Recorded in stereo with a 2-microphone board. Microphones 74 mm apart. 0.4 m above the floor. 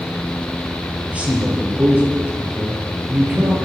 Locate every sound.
1.1 s a man speaking: 15° right (ahead or behind), 8 m; by 3.5 s 25° right (ahead or behind), 7 m